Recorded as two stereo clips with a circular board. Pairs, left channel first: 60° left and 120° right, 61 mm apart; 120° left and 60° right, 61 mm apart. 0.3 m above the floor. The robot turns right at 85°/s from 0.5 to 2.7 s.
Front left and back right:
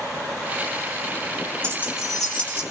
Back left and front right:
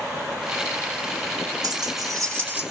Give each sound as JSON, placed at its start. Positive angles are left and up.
{"t": 1.6, "sound": "keys jangling", "azimuth_deg": -70, "distance_m": 3.5}